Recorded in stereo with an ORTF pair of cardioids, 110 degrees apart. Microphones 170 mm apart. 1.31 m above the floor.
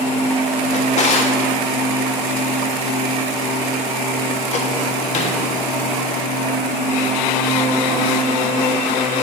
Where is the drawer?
45° left, 1.5 m.